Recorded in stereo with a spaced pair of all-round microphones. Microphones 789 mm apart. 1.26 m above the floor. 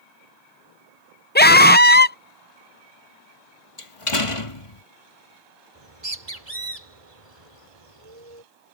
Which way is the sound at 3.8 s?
40° left (ahead or behind).